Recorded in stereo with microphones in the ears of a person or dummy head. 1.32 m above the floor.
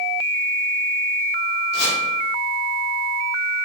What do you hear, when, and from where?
1.7 s chopping: 65° left (ahead or behind), 4.5 m